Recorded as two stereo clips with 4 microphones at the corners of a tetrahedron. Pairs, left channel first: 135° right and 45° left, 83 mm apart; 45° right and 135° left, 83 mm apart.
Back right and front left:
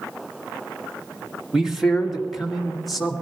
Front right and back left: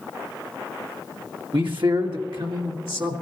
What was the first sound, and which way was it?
A man speaking, 130° left.